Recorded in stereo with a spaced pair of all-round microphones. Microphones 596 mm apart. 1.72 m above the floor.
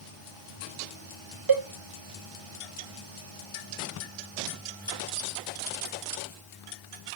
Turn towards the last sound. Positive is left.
turn(degrees=-35)  # may be behind; listen again after turning